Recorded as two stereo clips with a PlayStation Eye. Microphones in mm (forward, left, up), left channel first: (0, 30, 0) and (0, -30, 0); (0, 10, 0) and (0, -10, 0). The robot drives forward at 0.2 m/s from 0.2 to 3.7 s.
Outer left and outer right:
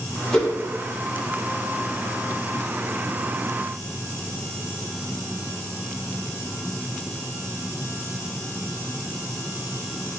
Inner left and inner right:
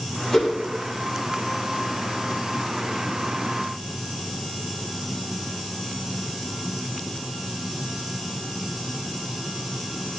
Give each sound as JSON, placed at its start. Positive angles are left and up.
{"t": 0.3, "sound": "a whoosh", "side_deg": 5, "distance_m": 1.3}